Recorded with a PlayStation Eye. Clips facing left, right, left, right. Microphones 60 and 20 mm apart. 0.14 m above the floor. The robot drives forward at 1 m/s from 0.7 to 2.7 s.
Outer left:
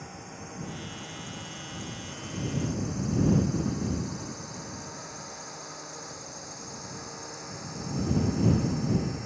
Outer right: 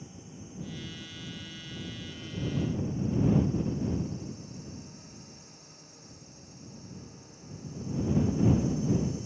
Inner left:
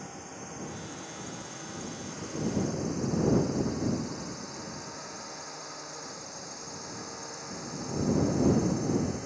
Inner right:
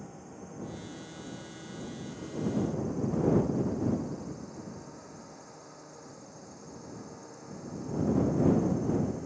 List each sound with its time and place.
0.0 s a drone: 60° left (ahead or behind); by 9.3 s 55° left (ahead or behind)